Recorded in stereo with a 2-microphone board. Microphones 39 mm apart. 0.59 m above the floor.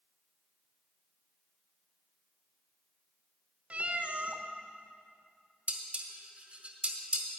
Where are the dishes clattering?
35° right (ahead or behind), 1.0 m.